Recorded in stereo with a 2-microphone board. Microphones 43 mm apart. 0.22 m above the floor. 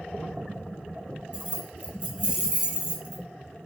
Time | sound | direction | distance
1.3 | keys jangling | 30° right (ahead or behind) | 0.8 m